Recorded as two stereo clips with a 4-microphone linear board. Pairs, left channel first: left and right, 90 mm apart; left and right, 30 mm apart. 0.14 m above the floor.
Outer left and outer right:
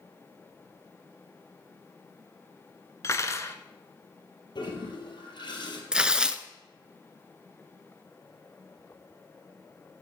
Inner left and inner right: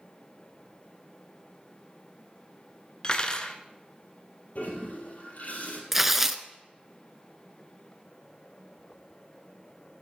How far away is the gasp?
I don't hear a gasp.